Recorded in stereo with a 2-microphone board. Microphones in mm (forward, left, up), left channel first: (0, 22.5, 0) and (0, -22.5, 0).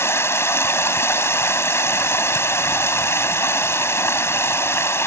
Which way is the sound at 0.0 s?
75° left (ahead or behind).